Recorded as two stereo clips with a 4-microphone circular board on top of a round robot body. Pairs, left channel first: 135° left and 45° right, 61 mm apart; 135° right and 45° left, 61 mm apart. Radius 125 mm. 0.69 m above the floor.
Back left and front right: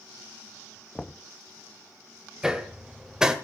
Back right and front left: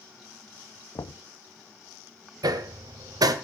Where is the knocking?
140° right, 0.6 m.